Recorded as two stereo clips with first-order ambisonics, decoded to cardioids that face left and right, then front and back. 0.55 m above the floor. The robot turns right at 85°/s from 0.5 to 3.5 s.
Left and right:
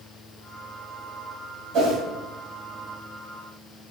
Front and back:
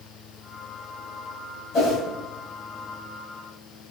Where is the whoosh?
50° right, 1.4 m; by 2.0 s 30° right, 1.4 m.